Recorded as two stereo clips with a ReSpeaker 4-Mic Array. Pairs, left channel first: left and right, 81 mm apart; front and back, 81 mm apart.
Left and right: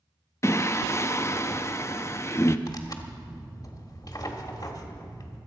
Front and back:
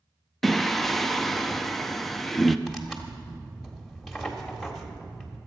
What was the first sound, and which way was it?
Singing, 85° left.